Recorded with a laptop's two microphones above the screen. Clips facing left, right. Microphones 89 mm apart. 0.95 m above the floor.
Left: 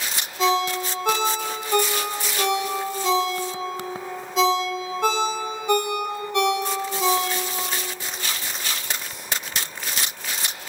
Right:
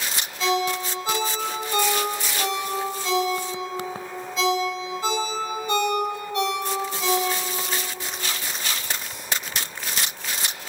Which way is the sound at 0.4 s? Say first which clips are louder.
Left 2 dB; 80° left.